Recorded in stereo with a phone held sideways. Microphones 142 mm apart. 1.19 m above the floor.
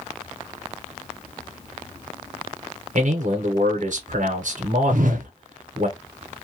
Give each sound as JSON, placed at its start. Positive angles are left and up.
{"t": 3.0, "sound": "a man speaking", "side_deg": -65, "distance_m": 0.8}
{"t": 4.9, "sound": "a whoosh", "side_deg": -70, "distance_m": 0.5}